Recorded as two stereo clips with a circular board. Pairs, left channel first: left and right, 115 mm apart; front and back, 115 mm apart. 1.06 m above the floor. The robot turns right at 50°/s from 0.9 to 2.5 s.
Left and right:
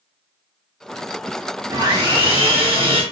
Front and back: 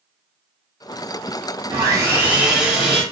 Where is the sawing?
140° right, 0.8 m; by 3.0 s 100° right, 0.8 m.